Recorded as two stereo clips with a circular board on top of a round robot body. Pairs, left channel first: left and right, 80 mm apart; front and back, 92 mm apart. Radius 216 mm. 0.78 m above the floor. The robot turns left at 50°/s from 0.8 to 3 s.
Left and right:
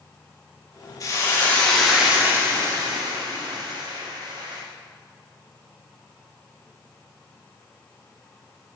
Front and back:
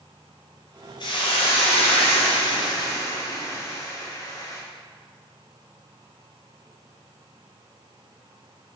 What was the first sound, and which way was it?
A hiss, 40° left.